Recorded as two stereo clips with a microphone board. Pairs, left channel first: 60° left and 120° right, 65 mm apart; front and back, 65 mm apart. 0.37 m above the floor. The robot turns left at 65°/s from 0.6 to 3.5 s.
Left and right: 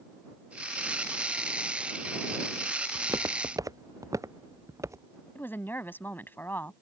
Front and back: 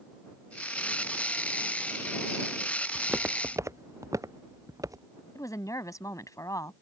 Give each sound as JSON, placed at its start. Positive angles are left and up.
{"t": 3.0, "sound": "footsteps", "azimuth_deg": -95}
{"t": 5.3, "sound": "a woman speaking", "azimuth_deg": 10}